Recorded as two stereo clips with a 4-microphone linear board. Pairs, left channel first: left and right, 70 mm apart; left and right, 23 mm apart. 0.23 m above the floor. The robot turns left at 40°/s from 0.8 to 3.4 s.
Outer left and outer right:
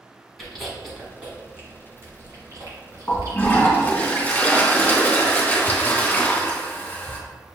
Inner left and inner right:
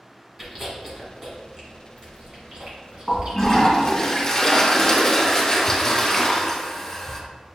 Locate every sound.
0.4 s chewing: centre (ahead or behind), 1.4 m; by 4.0 s 55° right (ahead or behind), 1.4 m
3.1 s a toilet flushing: 30° left (ahead or behind), 1.6 m; by 7.2 s 20° left (ahead or behind), 1.6 m